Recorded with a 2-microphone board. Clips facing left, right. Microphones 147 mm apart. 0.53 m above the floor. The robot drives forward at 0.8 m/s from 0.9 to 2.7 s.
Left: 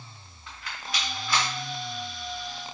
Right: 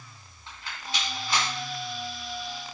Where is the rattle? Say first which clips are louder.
Even; 25° right (ahead or behind), 4 m.